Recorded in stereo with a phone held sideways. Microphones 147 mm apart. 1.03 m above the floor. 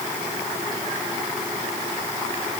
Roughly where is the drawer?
No drawer in this recording.